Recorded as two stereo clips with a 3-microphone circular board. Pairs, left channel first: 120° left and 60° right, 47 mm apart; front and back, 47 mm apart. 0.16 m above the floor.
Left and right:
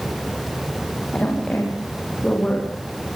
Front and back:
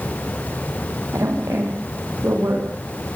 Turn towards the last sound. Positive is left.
turn(degrees=-165)